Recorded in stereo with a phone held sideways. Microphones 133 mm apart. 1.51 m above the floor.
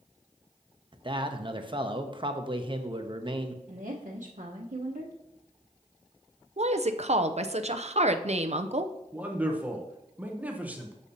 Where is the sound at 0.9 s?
35° right (ahead or behind), 0.8 m.